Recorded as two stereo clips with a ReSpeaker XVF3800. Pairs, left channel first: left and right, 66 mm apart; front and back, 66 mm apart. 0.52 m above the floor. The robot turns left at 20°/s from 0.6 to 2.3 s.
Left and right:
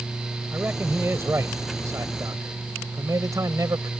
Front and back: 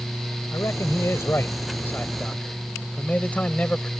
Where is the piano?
I don't hear a piano.